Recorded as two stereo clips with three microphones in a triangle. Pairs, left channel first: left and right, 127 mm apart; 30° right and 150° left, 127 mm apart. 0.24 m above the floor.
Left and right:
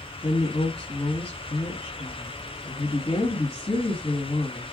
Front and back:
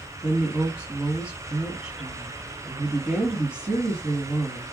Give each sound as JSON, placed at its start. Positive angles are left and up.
{"t": 0.2, "sound": "a woman speaking", "azimuth_deg": 75, "distance_m": 2.0}